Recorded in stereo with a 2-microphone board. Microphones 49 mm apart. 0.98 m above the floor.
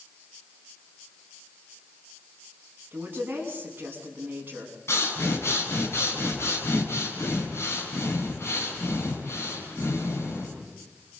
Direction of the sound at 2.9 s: 40° right (ahead or behind).